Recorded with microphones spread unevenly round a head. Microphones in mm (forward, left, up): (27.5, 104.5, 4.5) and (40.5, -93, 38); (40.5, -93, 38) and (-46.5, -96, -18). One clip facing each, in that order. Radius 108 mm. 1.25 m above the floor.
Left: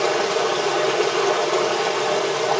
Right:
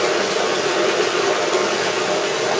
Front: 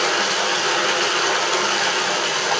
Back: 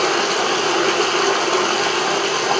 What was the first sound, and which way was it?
Running water, 155° right.